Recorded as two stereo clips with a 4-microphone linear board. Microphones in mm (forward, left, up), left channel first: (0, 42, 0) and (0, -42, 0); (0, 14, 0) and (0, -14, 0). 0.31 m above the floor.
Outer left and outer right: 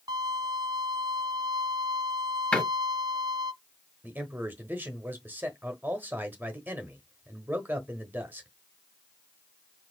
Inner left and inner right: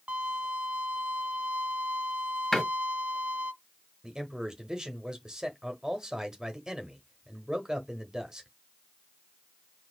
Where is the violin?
50° right (ahead or behind), 0.7 m.